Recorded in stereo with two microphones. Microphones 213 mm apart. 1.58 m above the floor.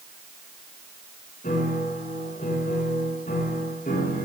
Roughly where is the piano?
Left.